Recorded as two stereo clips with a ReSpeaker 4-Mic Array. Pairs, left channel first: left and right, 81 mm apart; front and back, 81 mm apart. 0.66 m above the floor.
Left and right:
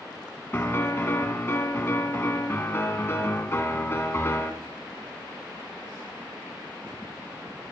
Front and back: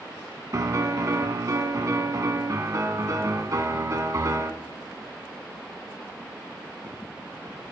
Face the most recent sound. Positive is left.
turn(degrees=145)